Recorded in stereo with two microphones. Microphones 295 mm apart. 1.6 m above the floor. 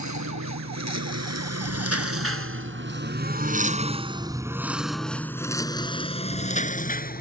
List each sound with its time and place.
0.0 s a lawn mower: 70° right (ahead or behind); by 7.2 s 30° left (ahead or behind)